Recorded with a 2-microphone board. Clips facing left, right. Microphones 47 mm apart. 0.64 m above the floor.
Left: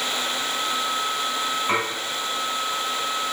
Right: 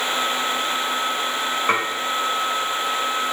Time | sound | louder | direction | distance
1.7 | dishes clattering | right 3 dB | 60° right (ahead or behind) | 1.9 m